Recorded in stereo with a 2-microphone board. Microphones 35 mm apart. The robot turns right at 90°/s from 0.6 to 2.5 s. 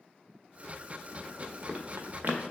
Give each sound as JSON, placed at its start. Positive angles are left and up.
{"t": 1.4, "sound": "running footsteps", "side_deg": 15, "distance_m": 1.3}